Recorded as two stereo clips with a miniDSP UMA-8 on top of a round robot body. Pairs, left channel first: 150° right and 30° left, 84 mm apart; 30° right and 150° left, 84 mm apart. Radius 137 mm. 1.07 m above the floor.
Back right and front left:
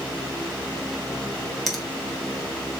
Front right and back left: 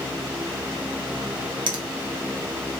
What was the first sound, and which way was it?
A finger snap, 120° left.